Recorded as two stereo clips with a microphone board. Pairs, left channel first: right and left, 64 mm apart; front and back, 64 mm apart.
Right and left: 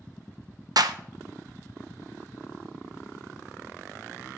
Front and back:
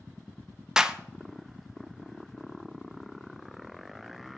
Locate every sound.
0.8 s a clap: 100° left, 0.8 m